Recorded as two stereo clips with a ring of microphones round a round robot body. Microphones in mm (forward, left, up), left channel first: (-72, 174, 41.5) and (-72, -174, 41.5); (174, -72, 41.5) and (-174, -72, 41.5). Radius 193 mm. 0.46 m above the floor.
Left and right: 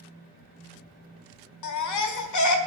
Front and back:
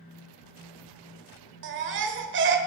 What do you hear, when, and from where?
1.6 s a baby crying: 125° left, 1.3 m